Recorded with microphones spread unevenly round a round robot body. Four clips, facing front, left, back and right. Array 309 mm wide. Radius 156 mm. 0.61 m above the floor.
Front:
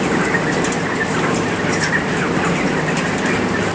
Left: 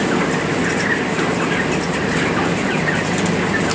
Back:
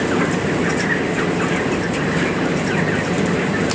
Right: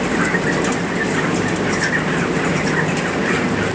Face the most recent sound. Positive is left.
No sound to turn to.